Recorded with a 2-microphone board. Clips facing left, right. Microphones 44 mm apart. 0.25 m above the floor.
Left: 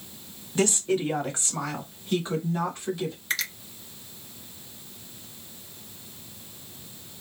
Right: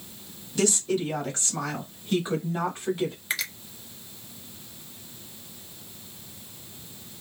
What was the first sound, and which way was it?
A woman speaking, 35° left (ahead or behind).